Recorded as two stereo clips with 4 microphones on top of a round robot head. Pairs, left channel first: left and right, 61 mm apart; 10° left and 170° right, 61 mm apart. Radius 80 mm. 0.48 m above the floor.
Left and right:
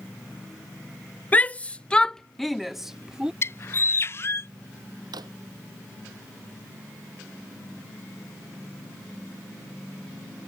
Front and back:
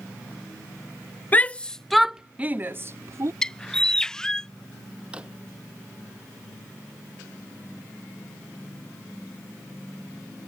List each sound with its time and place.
1.3 s a shout: 45° left; by 3.3 s 165° right
3.4 s a bird: 85° left
5.1 s a drawer: 95° right